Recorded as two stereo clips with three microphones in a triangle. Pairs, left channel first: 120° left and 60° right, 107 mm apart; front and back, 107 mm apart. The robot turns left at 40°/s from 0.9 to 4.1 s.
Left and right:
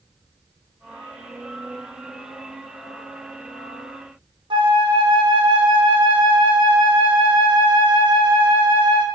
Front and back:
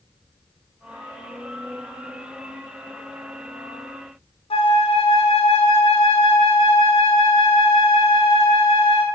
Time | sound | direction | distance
4.5 | a flute | 20° right | 0.5 m